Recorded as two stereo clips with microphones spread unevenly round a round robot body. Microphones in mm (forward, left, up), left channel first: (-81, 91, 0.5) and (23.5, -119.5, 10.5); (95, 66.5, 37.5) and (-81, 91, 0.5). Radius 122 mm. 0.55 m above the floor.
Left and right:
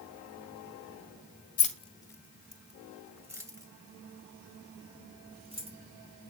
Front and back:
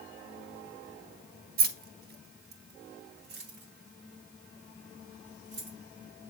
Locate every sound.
1.6 s keys jangling: 170° left, 1.0 m; by 5.8 s 130° right, 4 m